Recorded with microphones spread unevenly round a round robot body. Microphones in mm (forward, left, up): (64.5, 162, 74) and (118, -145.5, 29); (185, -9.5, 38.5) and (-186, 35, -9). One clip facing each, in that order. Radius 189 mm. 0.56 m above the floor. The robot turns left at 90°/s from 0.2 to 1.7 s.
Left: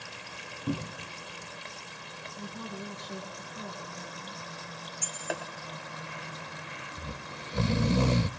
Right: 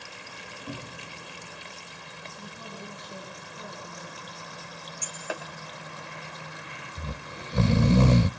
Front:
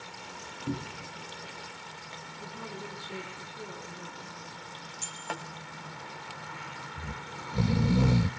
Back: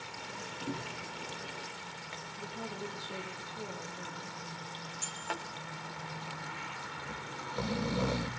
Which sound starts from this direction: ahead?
Breaking glass, at 5.0 s.